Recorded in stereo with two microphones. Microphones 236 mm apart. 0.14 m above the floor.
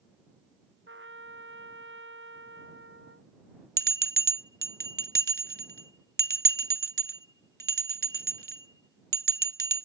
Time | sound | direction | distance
0.9 | a trumpet | 55° right (ahead or behind) | ?
3.8 | a bell | 40° right (ahead or behind) | ?